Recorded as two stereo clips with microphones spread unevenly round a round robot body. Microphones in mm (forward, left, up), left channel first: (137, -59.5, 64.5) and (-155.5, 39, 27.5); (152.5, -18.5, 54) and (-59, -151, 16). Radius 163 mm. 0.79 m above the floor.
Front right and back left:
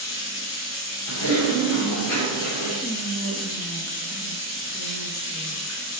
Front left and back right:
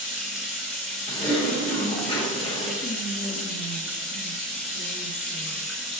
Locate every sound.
0.0 s running water: 60° right, 3 m
1.1 s typing on a keyboard: 35° right, 3.5 m
2.8 s whispering: 75° left, 1.2 m